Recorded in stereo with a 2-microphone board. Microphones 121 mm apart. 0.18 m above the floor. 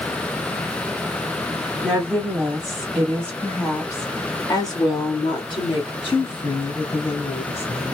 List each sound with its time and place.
1.8 s a woman speaking: 15° right (ahead or behind), 1.6 m; by 7.9 s 50° left (ahead or behind), 3 m